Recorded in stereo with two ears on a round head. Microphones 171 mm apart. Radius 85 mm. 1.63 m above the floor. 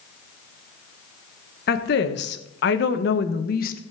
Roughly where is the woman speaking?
Left.